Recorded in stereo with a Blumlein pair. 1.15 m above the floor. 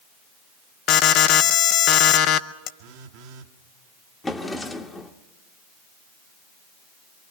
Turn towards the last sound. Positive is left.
turn(degrees=10)